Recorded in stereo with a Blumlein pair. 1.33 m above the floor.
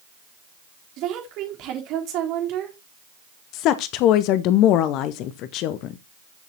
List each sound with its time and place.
1.0 s a woman speaking: 40° right, 3.5 m
3.5 s a woman speaking: 40° left, 0.7 m